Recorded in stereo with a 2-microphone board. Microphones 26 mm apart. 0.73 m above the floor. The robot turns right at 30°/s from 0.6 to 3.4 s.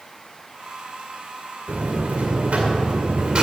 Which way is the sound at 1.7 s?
90° right.